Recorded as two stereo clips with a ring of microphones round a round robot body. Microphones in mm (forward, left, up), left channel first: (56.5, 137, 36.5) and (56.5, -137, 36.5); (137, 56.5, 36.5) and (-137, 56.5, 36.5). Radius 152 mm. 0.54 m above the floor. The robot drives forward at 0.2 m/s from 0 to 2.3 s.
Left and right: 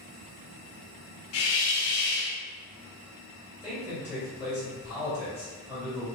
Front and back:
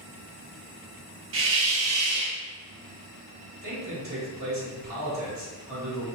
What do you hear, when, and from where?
1.3 s a hiss: 135° left, 0.6 m; by 2.4 s 145° left, 0.7 m
3.6 s a man speaking: 175° right, 1.8 m